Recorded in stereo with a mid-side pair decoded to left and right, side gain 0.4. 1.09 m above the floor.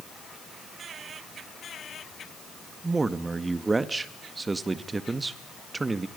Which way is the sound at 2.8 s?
30° right.